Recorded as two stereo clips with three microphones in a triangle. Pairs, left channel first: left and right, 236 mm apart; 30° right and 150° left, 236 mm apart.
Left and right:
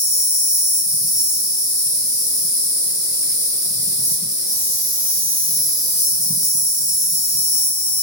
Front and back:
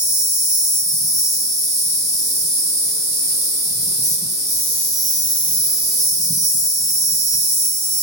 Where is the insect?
120° left, 1.8 m.